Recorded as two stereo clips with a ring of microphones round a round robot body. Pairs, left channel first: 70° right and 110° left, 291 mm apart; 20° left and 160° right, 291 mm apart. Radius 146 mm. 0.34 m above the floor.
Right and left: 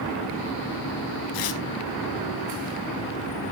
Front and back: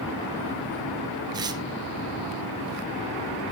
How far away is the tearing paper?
About 1.4 m.